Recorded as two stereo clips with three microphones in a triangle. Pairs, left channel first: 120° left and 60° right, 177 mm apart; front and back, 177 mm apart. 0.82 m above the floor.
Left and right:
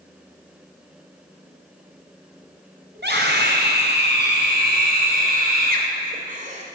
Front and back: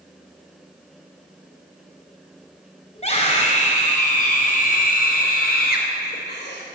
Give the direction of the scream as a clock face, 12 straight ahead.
2 o'clock.